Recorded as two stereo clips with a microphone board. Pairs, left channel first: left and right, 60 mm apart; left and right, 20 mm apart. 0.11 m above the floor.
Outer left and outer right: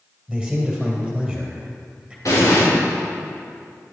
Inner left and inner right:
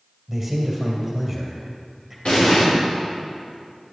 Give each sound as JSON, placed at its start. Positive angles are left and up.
{"t": 0.3, "sound": "a man speaking", "side_deg": 0, "distance_m": 2.0}
{"t": 2.2, "sound": "an explosion", "side_deg": 60, "distance_m": 4.0}